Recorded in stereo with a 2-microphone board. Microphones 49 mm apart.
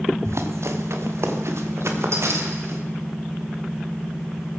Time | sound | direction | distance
0.2 | running footsteps | 70° right (ahead or behind) | 2 m